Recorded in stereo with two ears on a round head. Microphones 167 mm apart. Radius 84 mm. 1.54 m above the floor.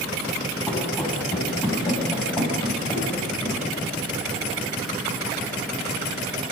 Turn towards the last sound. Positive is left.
turn(degrees=25)  # may be behind; listen again after turning